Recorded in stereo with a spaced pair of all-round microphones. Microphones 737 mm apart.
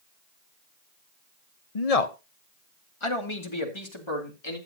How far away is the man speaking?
About 0.9 m.